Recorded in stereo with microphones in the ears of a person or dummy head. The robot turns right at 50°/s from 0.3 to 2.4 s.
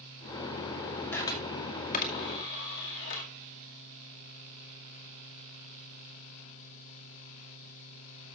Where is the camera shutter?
15° left (ahead or behind), 2 m; by 3.3 s 65° left (ahead or behind), 2 m.